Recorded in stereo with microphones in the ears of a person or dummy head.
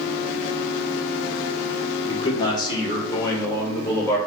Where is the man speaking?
35° left (ahead or behind), 3 m; by 4.2 s 15° left (ahead or behind), 4.5 m.